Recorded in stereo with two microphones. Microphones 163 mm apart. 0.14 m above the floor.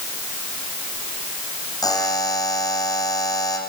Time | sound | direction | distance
1.8 | a buzzer | 25° left (ahead or behind) | 6.5 m